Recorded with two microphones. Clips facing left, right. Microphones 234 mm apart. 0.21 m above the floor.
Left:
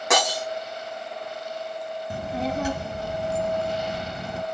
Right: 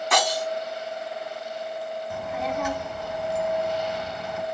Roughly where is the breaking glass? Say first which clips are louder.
Left 2 dB; left.